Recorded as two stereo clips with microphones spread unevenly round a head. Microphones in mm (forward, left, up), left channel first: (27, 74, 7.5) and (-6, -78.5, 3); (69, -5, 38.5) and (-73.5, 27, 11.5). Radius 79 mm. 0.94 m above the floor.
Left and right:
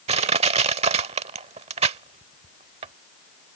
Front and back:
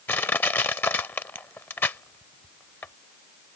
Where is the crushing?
70° right.